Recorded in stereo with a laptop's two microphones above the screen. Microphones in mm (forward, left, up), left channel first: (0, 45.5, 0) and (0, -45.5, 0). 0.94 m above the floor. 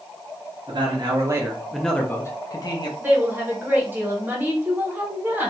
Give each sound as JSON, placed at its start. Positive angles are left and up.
{"t": 0.7, "sound": "a man speaking", "side_deg": -55, "distance_m": 0.8}
{"t": 3.0, "sound": "a woman speaking", "side_deg": -20, "distance_m": 0.9}